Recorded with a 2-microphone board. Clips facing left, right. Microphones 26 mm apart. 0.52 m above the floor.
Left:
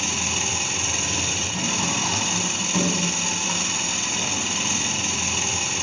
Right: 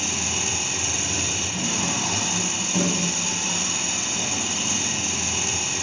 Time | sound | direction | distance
0.0 | an engine running | 15° left (ahead or behind) | 3 m